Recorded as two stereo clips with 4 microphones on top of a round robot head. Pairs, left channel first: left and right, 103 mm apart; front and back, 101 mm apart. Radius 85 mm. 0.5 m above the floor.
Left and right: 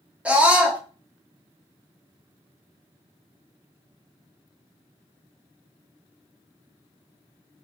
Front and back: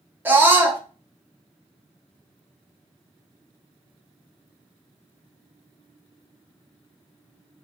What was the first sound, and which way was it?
A scream, 150° right.